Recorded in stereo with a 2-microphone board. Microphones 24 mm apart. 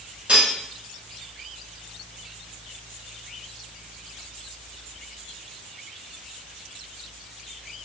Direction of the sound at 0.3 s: 55° right (ahead or behind).